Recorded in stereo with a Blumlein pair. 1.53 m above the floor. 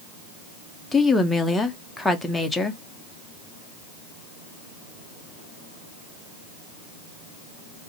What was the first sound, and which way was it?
A woman speaking, 5° left.